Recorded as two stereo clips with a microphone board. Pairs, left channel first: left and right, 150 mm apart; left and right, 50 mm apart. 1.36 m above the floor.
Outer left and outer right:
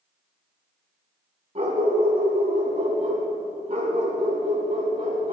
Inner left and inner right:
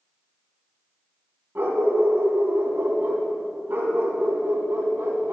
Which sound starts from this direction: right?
A dog barking, at 1.6 s.